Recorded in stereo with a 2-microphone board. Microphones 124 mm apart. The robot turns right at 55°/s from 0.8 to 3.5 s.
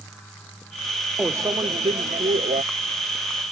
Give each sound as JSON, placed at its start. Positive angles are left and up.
{"t": 1.2, "sound": "a microwave", "azimuth_deg": -165}